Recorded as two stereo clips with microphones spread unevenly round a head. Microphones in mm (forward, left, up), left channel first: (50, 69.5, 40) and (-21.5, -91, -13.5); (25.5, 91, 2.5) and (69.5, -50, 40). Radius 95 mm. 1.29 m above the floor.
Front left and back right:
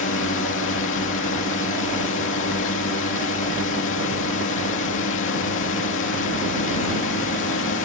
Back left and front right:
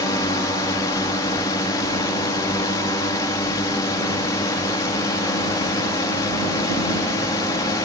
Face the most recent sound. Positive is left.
turn(degrees=45)